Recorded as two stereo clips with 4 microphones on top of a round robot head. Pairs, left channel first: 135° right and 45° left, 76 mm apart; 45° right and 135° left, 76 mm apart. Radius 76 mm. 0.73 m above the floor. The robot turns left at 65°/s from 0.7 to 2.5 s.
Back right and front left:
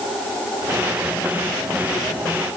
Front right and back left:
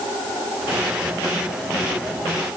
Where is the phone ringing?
I don't hear a phone ringing.